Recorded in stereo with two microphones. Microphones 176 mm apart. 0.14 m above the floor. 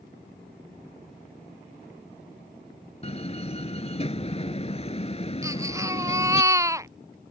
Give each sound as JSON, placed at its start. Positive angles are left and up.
{"t": 3.0, "sound": "a door slam", "side_deg": 35}
{"t": 5.4, "sound": "a baby crying", "side_deg": -15}